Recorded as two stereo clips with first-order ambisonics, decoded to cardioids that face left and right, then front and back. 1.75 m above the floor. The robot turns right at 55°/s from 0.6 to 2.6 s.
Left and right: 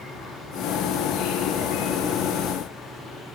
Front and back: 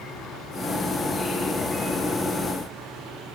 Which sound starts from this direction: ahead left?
An insect, at 0.0 s.